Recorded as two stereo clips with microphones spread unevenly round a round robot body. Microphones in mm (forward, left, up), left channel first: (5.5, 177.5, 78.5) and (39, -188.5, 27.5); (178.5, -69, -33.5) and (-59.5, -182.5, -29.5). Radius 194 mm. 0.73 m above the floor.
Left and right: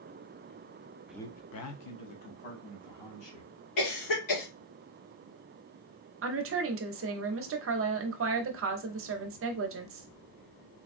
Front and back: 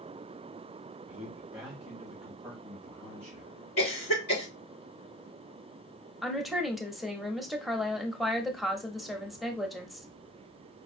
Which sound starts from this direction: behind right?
A man speaking, at 1.1 s.